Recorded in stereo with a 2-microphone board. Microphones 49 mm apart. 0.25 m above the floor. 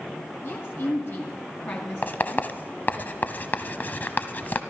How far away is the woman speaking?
About 2 m.